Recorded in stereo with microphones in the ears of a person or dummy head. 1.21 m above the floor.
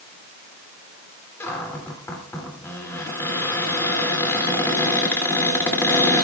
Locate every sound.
1.4 s a cupboard door: 15° left (ahead or behind), 2.5 m